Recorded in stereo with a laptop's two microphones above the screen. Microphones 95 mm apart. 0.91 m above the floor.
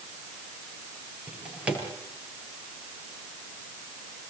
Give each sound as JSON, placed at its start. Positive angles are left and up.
{"t": 1.3, "sound": "a drawer", "side_deg": -15, "distance_m": 7.0}